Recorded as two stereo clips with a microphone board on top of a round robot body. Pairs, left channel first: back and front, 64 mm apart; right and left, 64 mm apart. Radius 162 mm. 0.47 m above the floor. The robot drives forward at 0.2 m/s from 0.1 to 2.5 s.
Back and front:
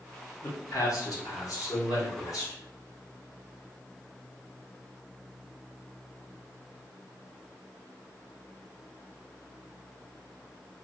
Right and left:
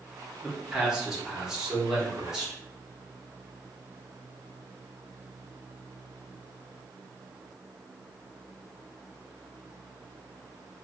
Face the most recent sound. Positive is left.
turn(degrees=170)